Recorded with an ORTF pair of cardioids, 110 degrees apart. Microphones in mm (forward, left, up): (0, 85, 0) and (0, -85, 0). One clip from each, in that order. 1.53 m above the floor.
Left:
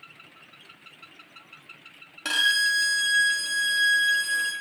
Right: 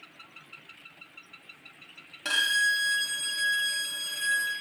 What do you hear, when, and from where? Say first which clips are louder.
2.2 s a violin: left 3 dB; 10° left, 0.9 m